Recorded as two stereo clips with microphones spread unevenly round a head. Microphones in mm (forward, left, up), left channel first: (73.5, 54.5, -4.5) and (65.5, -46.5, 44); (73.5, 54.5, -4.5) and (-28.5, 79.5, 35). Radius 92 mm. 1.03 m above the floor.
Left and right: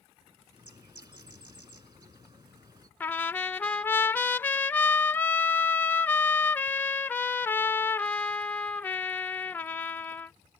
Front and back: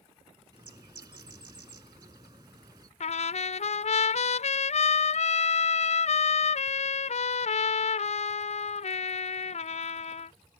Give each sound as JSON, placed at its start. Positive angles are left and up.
{"t": 0.5, "sound": "a bird", "azimuth_deg": -140}
{"t": 3.0, "sound": "a trumpet", "azimuth_deg": 5}